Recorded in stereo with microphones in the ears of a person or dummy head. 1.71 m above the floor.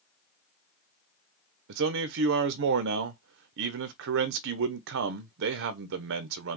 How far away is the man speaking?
About 0.7 m.